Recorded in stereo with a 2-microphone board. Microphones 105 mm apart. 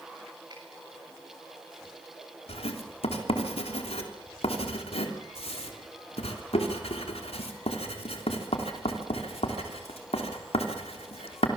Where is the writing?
75° left (ahead or behind), 3.5 m.